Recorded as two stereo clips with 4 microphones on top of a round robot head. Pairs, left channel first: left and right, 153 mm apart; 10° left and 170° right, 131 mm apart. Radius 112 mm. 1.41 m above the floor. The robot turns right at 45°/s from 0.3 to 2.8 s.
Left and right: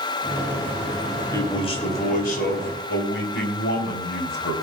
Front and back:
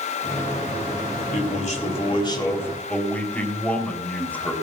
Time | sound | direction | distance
1.3 | a man speaking | 20° left | 3 m